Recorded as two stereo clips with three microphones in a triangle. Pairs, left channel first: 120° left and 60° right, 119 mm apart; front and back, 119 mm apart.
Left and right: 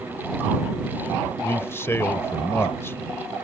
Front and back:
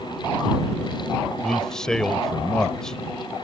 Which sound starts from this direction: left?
A man speaking, at 1.4 s.